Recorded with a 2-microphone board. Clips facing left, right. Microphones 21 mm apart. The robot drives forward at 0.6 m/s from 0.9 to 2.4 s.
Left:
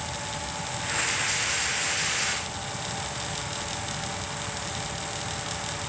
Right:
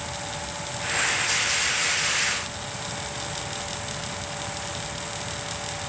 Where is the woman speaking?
I don't hear a woman speaking.